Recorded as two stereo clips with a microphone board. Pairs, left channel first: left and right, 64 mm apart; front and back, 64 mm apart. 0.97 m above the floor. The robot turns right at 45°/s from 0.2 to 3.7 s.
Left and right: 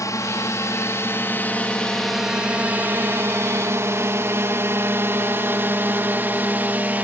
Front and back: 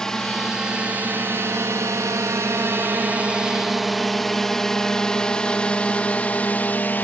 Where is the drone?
80° left; by 7.0 s 45° right.